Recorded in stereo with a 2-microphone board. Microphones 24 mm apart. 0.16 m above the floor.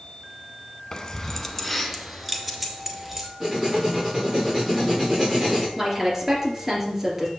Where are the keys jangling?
30° left (ahead or behind), 0.8 m; by 3.3 s 15° right (ahead or behind), 2 m.